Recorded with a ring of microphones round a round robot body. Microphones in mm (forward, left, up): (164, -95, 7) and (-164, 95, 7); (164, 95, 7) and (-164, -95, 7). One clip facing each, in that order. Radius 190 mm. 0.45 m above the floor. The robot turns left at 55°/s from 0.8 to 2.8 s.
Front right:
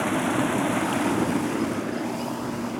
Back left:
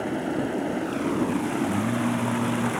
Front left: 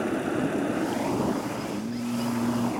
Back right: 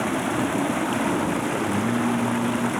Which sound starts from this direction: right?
Running water, at 0.0 s.